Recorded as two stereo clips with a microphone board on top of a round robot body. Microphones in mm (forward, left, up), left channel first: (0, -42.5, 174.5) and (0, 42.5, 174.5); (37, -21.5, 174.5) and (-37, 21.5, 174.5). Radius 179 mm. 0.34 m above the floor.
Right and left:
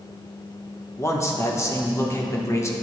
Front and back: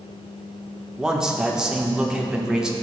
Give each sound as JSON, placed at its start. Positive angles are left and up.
{"t": 1.0, "sound": "a man speaking", "azimuth_deg": -130, "distance_m": 1.4}